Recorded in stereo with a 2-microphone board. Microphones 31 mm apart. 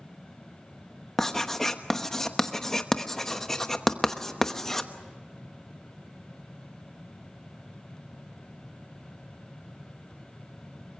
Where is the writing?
10° left (ahead or behind), 1.0 m.